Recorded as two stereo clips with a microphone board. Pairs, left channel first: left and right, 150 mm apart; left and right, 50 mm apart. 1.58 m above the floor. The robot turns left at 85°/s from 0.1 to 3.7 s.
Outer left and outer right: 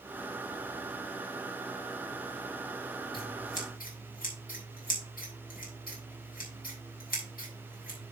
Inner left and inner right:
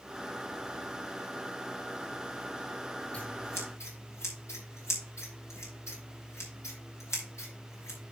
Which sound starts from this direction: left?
Scissors, at 3.1 s.